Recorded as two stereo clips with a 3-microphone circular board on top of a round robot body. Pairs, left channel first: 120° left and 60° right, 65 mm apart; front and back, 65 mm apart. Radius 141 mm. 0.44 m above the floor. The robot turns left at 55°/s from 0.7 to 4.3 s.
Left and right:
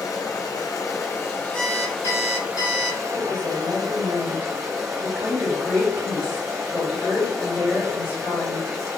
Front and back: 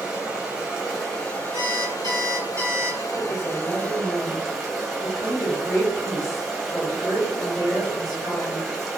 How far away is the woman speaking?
About 1.9 m.